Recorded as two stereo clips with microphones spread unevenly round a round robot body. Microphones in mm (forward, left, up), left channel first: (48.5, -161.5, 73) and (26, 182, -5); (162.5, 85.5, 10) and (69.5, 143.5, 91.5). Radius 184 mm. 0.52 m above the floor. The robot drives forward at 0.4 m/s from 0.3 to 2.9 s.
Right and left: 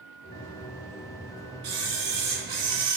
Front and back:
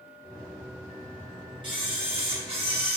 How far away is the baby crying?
No baby crying in this recording.